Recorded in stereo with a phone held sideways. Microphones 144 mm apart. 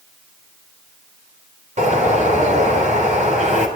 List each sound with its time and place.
1.8 s a bird: 60° right (ahead or behind), 3.5 m